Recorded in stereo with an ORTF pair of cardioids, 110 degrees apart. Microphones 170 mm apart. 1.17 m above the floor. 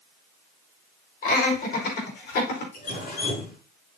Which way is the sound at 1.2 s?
55° left.